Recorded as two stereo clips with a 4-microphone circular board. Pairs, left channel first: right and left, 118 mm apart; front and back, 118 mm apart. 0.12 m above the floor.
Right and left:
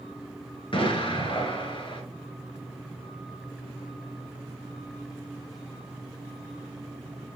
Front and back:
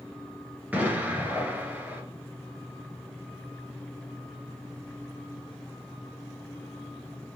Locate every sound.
0.7 s an explosion: 110° right, 1.2 m